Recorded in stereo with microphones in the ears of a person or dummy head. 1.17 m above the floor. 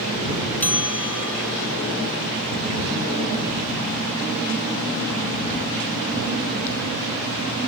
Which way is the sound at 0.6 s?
15° left (ahead or behind).